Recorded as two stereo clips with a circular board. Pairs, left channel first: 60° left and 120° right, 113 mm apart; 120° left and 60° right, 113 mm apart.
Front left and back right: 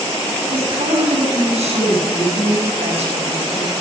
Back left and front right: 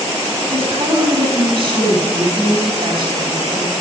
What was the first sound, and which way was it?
A woman speaking, 100° right.